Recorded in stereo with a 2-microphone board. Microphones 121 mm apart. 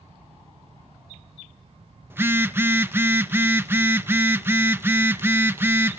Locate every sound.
2.1 s a phone buzzing: 20° right (ahead or behind), 0.8 m